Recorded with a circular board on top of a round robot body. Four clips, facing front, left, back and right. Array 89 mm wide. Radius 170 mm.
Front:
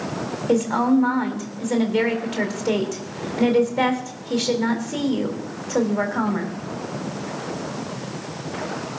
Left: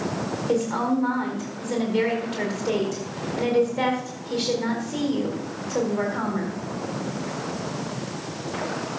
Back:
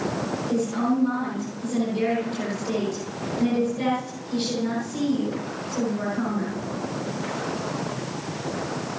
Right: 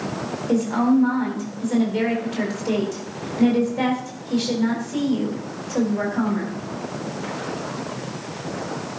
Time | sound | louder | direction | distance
0.5 | a woman speaking | right 5 dB, front 6 dB | straight ahead | 4.5 m